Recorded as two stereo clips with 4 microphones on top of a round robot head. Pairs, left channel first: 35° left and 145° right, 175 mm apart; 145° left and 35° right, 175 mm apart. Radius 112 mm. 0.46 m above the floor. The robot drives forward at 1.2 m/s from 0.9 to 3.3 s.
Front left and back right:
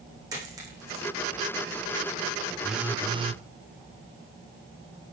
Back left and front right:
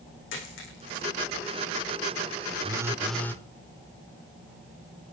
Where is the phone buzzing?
50° right, 1.1 m; by 3.5 s 145° right, 1.2 m.